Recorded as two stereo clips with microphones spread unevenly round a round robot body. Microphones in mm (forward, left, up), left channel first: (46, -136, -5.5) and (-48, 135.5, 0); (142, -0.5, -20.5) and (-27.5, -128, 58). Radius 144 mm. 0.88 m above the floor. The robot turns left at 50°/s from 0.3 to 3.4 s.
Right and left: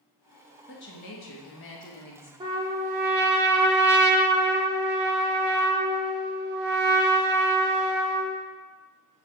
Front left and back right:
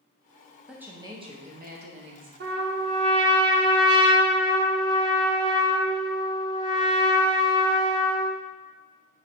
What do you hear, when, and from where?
0.7 s a woman speaking: 35° right, 1.0 m; by 2.3 s 115° right, 1.0 m
2.4 s a trumpet: 175° left, 0.5 m; by 8.4 s 125° left, 0.5 m